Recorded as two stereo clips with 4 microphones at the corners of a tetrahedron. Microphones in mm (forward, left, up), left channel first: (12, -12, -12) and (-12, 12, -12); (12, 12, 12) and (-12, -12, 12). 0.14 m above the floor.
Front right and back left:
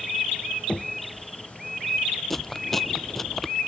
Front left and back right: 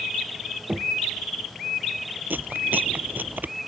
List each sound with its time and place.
0.7 s knocking: 95° right
2.3 s chewing: 125° right